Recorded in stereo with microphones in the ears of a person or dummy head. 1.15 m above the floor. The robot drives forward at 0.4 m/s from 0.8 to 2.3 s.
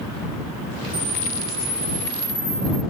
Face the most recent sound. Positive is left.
turn(degrees=-10)  # may be behind; listen again after turning